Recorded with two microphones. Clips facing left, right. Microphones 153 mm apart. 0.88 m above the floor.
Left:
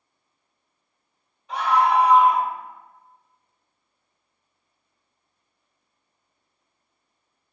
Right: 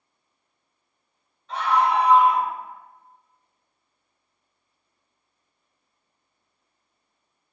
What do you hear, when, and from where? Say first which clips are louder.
1.5 s a scream: left 1 dB; 15° left (ahead or behind), 2 m